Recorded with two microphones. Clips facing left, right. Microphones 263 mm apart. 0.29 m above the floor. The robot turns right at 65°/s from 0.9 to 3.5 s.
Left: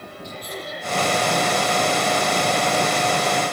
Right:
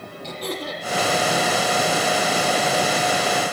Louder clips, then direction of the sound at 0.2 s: Right 6 dB; 80° right.